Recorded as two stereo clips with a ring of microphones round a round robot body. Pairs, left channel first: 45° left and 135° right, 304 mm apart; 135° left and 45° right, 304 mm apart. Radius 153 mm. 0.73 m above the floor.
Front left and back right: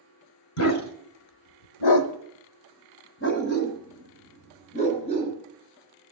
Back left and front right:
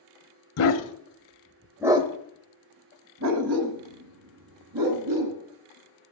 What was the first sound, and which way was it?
A dog barking, 90° left.